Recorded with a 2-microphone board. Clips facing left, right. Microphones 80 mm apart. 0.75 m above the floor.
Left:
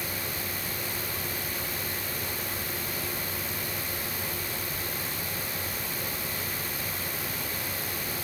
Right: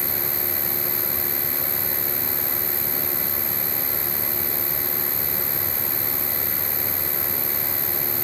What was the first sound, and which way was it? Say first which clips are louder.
An insect: right 4 dB; 80° right.